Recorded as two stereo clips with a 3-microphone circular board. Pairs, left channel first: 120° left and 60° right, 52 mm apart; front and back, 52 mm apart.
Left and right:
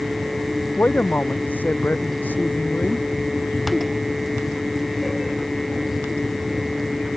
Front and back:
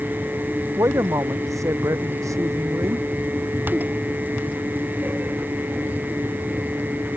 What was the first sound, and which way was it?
A man speaking, 175° left.